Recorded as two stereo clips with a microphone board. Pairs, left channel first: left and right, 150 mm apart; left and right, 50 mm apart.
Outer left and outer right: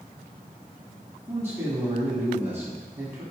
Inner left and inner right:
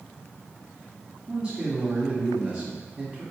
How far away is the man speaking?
About 1.6 m.